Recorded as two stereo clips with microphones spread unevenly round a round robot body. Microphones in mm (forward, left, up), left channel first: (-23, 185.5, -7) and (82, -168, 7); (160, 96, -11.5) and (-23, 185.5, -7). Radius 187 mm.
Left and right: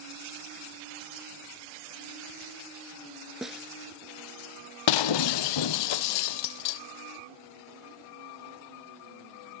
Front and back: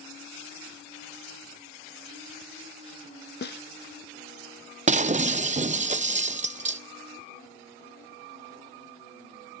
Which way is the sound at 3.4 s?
15° left.